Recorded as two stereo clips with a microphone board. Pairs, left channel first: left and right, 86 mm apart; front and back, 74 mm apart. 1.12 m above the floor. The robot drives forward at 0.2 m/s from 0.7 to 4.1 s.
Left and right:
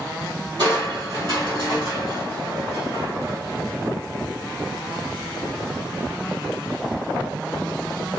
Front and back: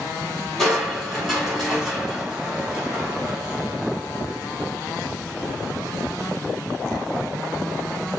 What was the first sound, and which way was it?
Crushing, 85° right.